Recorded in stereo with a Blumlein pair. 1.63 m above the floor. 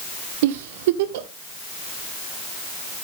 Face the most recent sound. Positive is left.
turn(degrees=-50)